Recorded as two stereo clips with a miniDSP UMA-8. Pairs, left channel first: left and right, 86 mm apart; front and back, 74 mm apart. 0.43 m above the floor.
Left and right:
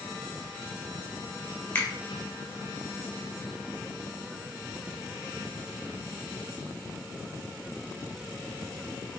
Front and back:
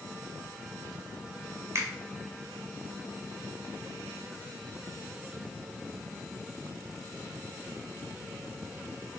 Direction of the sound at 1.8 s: 150° left.